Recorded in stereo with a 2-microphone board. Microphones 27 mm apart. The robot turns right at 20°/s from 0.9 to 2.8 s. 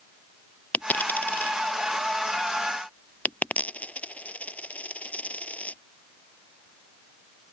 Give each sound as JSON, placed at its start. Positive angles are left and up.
{"t": 0.7, "sound": "a dropped coin", "side_deg": 80}